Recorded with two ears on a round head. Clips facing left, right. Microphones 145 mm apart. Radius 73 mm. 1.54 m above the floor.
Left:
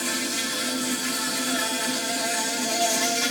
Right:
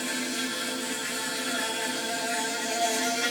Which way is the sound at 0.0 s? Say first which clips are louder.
Left 2 dB; 55° left (ahead or behind).